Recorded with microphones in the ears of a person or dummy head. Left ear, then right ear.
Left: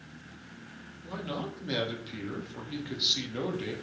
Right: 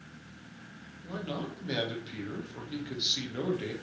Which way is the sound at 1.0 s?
Centre (ahead or behind).